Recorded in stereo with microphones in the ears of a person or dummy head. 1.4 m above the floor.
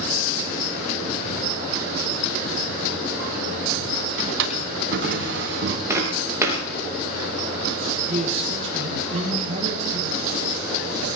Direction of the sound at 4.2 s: 70° right (ahead or behind).